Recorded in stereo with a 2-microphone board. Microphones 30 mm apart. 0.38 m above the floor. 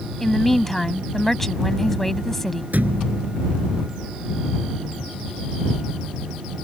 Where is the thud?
60° right (ahead or behind).